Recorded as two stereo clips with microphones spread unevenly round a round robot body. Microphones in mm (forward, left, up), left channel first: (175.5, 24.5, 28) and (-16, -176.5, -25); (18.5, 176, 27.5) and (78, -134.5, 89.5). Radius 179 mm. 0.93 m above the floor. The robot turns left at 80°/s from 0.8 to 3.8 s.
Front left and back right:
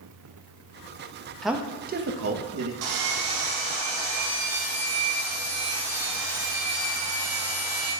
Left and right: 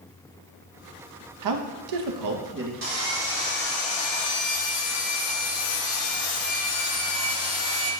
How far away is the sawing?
About 1.8 m.